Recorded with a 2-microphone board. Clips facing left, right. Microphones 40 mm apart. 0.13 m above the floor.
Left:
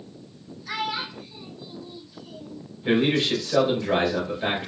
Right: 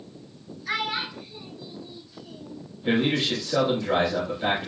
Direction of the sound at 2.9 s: 5° right (ahead or behind).